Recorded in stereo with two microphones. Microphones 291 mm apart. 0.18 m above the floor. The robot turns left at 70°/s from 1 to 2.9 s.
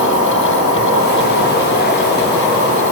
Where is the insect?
90° left, 1.0 m; by 2.9 s 45° right, 1.0 m.